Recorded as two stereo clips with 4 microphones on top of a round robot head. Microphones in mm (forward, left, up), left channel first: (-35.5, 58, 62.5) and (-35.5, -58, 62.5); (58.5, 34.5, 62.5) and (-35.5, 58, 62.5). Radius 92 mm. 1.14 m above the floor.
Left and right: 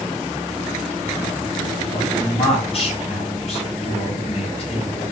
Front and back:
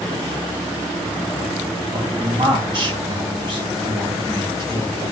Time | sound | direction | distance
1.9 | a man speaking | 125° left | 2 m